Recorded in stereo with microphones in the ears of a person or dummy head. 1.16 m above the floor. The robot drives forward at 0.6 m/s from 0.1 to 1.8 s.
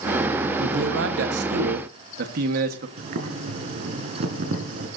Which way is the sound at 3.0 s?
50° right (ahead or behind).